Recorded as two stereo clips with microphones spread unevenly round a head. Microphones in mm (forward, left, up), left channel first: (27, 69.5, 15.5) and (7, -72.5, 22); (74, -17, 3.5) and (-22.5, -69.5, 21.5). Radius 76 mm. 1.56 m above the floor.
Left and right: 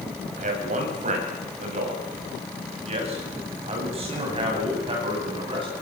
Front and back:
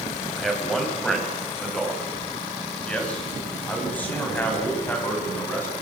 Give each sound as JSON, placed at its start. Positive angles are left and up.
{"t": 0.4, "sound": "a man speaking", "azimuth_deg": -60, "distance_m": 7.5}